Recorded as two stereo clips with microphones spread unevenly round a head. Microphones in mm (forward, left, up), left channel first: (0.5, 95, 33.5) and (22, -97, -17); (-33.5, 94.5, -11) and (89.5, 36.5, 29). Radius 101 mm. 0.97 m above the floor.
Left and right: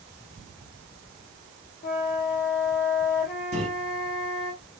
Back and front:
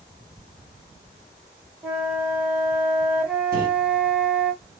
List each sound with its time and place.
1.8 s a flute: 85° left, 0.8 m
3.5 s a microwave: 30° right, 1.4 m